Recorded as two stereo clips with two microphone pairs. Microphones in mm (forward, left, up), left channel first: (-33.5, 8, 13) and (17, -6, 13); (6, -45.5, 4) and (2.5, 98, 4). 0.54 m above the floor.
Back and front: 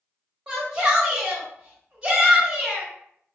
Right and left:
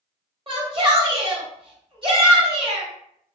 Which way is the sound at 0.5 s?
50° left.